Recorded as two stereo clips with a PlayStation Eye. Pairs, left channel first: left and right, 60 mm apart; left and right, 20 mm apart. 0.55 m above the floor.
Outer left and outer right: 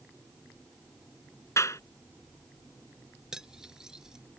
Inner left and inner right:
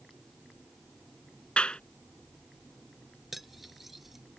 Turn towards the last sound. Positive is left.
turn(degrees=-10)  # may be behind; listen again after turning